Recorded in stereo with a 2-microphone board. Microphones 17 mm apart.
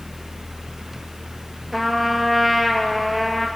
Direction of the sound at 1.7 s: 5° left (ahead or behind).